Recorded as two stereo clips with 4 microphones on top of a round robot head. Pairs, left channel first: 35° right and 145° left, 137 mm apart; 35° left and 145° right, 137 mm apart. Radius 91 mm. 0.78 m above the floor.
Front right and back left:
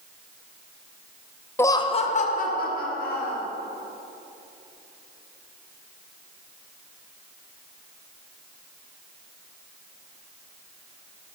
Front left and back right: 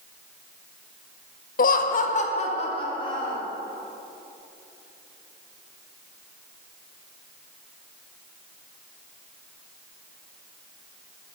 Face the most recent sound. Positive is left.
turn(degrees=-25)